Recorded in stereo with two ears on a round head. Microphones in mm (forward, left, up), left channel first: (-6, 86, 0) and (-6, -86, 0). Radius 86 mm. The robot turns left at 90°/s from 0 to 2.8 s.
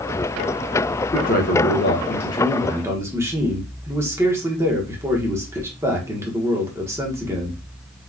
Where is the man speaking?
135° left, 1.0 m; by 7.6 s 15° right, 1.0 m.